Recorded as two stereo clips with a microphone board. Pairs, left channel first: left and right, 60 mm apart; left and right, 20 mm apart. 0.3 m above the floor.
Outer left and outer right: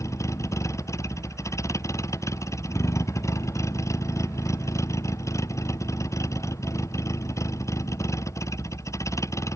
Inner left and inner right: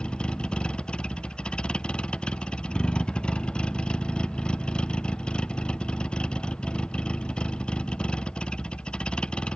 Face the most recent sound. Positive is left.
turn(degrees=55)  # may be behind; listen again after turning